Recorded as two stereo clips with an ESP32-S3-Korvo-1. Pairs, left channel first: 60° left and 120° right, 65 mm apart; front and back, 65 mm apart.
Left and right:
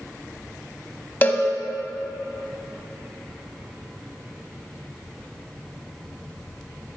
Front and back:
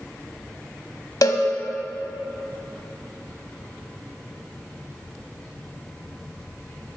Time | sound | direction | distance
1.2 | a cowbell | straight ahead | 0.7 m